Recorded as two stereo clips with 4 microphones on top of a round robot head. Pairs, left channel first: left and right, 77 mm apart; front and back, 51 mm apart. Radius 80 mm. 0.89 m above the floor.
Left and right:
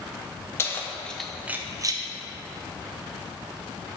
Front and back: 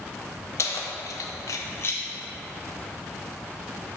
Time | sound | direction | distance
0.6 | keys jangling | 30° left | 0.7 m